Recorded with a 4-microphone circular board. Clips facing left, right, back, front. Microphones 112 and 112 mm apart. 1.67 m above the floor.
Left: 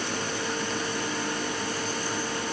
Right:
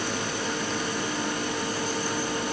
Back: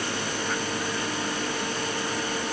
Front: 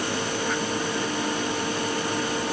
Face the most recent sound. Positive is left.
No sound to turn to.